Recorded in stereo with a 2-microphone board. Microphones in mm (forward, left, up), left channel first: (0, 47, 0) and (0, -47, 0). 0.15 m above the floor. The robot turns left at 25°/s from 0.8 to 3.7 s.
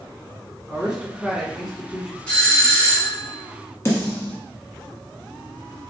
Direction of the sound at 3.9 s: 30° left (ahead or behind).